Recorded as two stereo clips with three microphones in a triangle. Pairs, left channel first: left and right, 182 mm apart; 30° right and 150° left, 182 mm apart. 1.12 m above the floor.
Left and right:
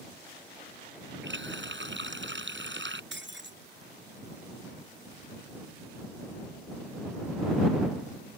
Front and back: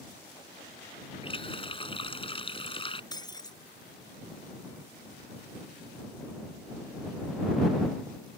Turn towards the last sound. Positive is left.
turn(degrees=-100)